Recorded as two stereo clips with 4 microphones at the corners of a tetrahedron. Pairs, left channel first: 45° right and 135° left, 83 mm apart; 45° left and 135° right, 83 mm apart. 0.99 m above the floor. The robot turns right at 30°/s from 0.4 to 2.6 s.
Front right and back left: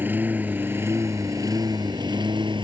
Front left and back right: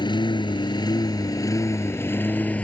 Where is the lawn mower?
70° left; by 2.6 s 115° left.